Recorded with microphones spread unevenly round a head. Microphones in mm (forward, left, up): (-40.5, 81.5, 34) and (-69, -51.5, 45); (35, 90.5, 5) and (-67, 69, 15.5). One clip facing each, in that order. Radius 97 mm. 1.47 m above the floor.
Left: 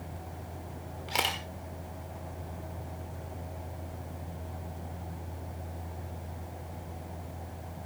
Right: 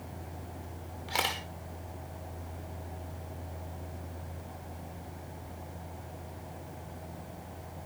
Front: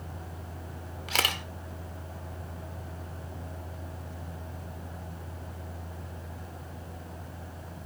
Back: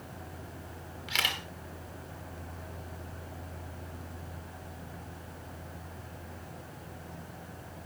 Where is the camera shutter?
10° right, 1.2 m.